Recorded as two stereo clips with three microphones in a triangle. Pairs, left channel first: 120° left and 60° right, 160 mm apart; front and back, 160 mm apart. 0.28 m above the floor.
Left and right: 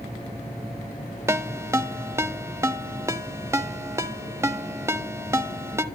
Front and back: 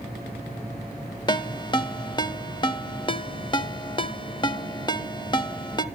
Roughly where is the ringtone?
Ahead.